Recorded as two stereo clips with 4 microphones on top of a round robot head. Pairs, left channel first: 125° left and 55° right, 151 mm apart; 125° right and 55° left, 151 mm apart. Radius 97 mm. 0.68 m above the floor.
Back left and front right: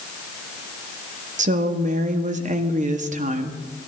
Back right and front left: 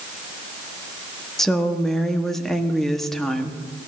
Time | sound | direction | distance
1.4 | a woman speaking | 40° right | 1.3 m